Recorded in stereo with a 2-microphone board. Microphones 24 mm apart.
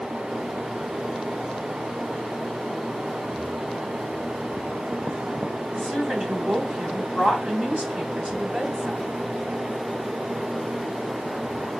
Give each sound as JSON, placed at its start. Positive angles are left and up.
{"t": 5.7, "sound": "a woman speaking", "side_deg": -70, "distance_m": 3.0}